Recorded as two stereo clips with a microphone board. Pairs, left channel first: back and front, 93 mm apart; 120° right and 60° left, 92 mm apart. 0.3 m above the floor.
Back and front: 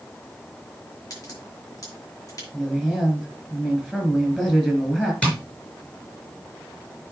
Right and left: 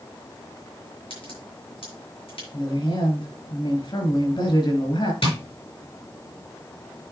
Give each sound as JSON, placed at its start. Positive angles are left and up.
{"t": 1.1, "sound": "a crack", "azimuth_deg": -130, "distance_m": 5.5}
{"t": 2.5, "sound": "a woman speaking", "azimuth_deg": -95, "distance_m": 4.0}
{"t": 5.2, "sound": "tapping", "azimuth_deg": -105, "distance_m": 4.5}